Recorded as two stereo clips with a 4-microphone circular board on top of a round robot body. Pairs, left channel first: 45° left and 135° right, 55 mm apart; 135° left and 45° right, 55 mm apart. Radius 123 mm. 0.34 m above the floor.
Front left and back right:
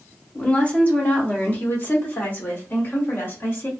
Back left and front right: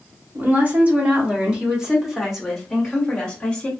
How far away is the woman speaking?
About 1.7 m.